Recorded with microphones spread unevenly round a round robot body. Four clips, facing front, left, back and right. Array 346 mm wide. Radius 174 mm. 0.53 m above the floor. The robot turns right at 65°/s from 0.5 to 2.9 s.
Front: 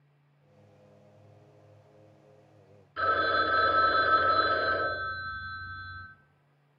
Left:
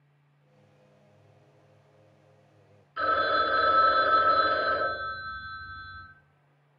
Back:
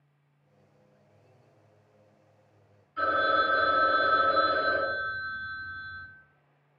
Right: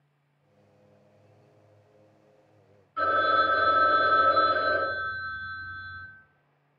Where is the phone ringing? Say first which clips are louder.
Right 2 dB, back 1 dB; 5° left, 1.3 m.